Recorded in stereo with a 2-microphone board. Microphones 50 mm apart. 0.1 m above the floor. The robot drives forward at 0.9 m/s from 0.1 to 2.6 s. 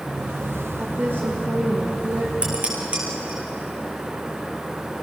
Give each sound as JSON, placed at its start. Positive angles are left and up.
{"t": 0.8, "sound": "a woman speaking", "side_deg": -45, "distance_m": 5.0}
{"t": 2.4, "sound": "dishes clattering", "side_deg": -25, "distance_m": 5.0}